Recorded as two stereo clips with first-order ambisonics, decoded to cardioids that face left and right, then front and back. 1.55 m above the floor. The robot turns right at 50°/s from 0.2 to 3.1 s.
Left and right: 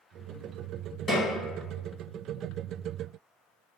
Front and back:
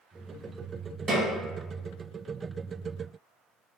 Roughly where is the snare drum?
Behind left.